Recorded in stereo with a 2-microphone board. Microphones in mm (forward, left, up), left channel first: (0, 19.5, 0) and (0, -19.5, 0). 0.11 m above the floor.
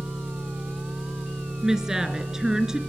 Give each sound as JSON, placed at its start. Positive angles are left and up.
{"t": 0.0, "sound": "an engine running", "side_deg": -15, "distance_m": 9.5}
{"t": 1.6, "sound": "a woman speaking", "side_deg": -20, "distance_m": 1.8}